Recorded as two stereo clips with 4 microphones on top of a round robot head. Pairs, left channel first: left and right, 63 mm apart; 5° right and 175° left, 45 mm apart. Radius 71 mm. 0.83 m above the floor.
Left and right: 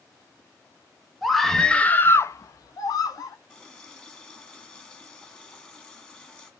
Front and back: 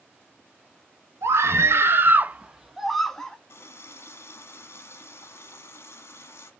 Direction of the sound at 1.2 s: Straight behind.